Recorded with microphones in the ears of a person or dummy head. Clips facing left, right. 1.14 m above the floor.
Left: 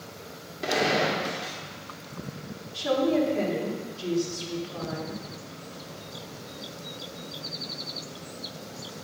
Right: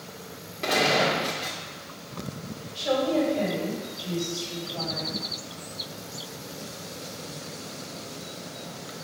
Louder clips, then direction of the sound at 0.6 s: Right 1 dB; 10° left (ahead or behind).